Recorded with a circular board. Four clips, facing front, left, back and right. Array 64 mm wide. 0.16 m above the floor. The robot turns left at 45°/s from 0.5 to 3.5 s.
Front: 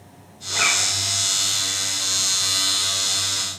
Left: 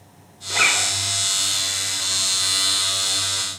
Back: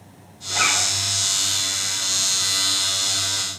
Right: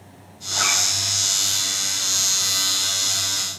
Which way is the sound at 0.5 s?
95° left.